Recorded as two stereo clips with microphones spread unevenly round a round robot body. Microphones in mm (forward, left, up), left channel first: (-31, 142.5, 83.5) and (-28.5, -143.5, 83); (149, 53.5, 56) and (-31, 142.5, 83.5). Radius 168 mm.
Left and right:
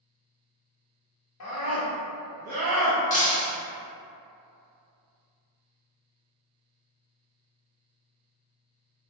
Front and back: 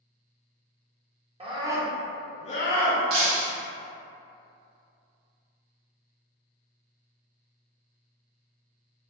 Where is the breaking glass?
155° left, 0.7 m.